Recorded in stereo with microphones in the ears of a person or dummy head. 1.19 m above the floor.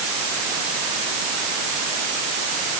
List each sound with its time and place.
Only background noise.